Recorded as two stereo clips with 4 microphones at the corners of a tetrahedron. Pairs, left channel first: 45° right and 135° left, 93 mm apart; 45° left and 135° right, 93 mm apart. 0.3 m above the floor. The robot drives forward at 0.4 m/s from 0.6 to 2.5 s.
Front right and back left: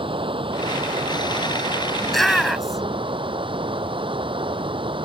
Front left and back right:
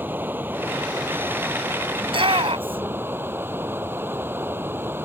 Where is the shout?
130° right; by 3.0 s 135° right.